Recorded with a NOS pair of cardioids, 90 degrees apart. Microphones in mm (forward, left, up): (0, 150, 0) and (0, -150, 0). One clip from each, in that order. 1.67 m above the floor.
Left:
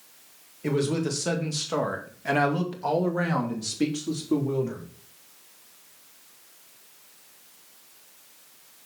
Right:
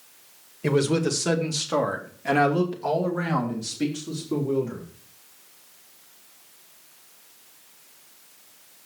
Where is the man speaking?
35° right, 2 m; by 4.8 s 25° left, 3.5 m.